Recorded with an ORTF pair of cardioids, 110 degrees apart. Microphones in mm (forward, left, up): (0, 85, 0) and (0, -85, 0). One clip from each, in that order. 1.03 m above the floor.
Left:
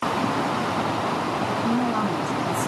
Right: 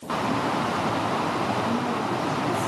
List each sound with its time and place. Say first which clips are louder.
1.6 s a woman speaking: left 2 dB; 50° left, 5 m